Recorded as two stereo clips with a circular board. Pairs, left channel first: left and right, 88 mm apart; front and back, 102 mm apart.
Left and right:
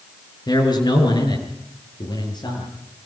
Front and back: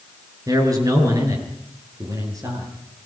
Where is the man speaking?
125° left, 6.5 m.